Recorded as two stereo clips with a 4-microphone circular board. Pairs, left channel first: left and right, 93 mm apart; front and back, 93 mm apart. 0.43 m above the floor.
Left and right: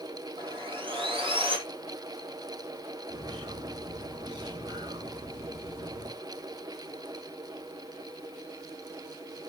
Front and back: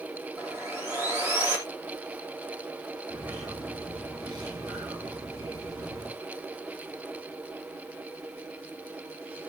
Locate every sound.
0.4 s sawing: 110° right, 3.5 m
3.1 s a bird: 130° right, 4.5 m